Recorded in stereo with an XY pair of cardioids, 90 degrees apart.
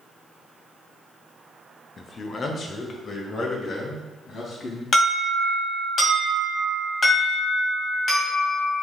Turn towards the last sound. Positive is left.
turn(degrees=40)